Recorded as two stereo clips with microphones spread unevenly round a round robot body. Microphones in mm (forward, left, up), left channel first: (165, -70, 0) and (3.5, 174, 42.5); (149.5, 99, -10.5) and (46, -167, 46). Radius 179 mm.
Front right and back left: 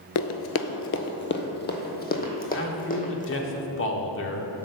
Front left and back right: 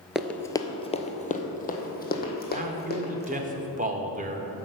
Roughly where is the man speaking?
Ahead right.